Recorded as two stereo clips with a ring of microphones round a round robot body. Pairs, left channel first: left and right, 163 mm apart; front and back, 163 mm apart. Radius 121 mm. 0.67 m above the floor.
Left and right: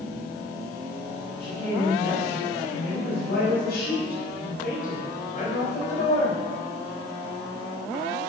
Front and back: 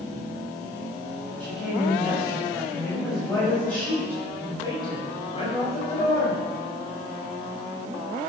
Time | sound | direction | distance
1.4 | a woman speaking | 105° left | 6 m